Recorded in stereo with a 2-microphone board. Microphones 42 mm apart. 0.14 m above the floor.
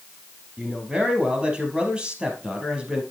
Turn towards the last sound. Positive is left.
turn(degrees=-25)  # may be behind; listen again after turning